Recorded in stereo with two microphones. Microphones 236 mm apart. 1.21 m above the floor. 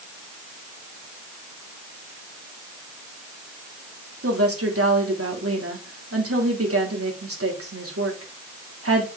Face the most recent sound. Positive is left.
turn(degrees=-75)  # may be behind; listen again after turning